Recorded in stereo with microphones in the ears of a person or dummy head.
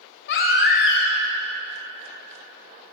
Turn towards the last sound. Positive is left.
turn(degrees=60)  # may be behind; listen again after turning